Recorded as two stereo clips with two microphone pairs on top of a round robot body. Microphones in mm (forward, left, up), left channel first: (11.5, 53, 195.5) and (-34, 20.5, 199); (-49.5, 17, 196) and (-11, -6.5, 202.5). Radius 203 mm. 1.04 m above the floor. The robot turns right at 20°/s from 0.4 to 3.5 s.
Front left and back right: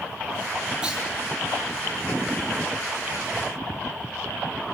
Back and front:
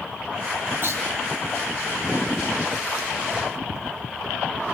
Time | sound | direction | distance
0.8 | a clunk | 65° right | 9 m